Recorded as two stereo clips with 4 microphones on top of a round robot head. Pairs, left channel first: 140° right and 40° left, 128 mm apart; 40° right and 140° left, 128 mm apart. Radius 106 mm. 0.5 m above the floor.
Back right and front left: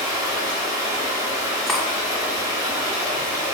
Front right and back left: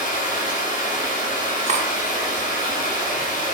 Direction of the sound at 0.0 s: 25° right.